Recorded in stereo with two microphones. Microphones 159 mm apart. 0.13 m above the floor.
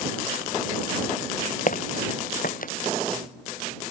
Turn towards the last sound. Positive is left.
turn(degrees=60)  # may be behind; listen again after turning